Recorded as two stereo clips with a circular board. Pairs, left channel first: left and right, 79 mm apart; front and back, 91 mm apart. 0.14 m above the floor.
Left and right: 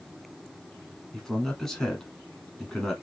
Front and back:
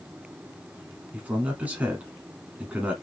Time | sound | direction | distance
1.1 | a man speaking | 160° left | 1.0 m